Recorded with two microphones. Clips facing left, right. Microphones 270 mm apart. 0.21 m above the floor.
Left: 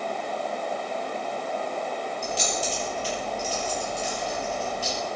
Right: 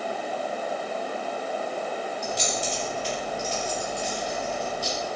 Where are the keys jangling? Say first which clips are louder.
Even; 35° left (ahead or behind), 4 m.